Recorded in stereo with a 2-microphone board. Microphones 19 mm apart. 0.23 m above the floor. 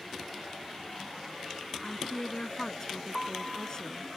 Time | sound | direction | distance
1.8 | a woman speaking | 35° left (ahead or behind) | ?
3.1 | a piano | centre (ahead or behind) | ?